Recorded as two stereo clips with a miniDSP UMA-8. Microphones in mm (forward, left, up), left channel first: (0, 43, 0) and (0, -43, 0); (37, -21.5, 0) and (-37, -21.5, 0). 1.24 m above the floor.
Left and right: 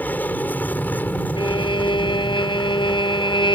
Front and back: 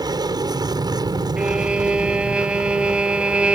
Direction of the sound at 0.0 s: 160° left.